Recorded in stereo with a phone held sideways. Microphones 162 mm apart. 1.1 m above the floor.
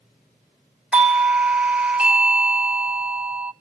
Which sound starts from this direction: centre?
A doorbell, at 0.9 s.